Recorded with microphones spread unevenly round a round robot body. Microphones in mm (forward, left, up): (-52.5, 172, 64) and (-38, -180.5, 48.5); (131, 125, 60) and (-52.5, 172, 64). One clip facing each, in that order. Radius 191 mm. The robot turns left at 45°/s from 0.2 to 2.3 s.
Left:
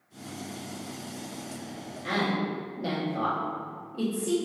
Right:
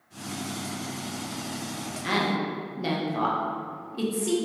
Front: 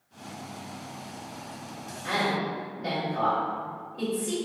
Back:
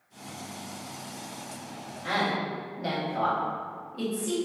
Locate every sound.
2.0 s a woman speaking: 140° right, 0.8 m; by 4.3 s 150° right, 0.8 m